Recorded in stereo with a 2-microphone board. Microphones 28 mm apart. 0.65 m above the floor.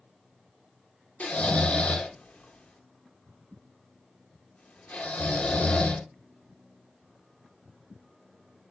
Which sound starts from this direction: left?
Snoring, at 1.2 s.